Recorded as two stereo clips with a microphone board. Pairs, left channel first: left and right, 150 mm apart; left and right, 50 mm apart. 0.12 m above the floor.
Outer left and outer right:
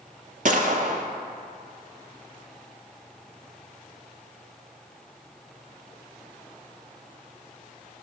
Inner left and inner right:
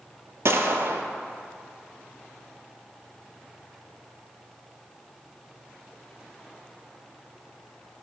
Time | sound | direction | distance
0.5 | a gunshot | 65° right (ahead or behind) | 0.7 m